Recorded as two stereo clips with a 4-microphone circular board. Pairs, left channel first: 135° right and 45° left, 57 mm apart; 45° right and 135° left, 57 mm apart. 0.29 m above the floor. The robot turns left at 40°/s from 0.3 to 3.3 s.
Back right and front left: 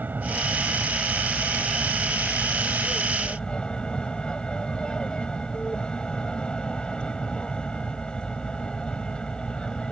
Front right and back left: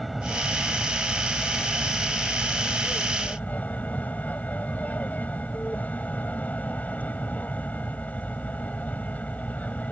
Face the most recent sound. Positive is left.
turn(degrees=-75)